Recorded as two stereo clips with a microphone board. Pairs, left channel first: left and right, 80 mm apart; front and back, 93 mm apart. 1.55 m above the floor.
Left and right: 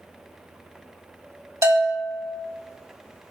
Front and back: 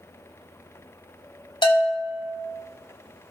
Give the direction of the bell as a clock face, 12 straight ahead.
1 o'clock.